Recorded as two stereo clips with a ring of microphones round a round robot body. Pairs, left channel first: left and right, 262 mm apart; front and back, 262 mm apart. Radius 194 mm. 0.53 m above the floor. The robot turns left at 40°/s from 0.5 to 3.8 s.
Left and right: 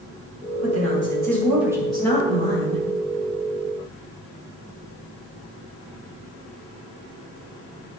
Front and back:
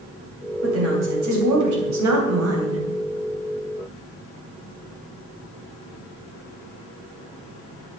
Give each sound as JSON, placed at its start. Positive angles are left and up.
{"t": 0.6, "sound": "a woman speaking", "azimuth_deg": -130, "distance_m": 3.0}